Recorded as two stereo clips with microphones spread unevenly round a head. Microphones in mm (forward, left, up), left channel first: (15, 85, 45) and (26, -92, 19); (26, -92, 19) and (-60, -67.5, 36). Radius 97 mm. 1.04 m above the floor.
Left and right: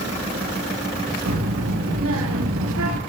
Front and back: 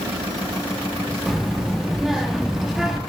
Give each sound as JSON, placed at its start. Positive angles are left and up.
{"t": 1.3, "sound": "a child speaking", "azimuth_deg": -110, "distance_m": 1.1}